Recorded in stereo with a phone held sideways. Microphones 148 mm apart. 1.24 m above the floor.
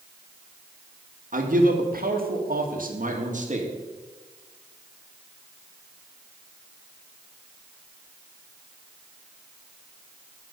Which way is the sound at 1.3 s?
65° right (ahead or behind).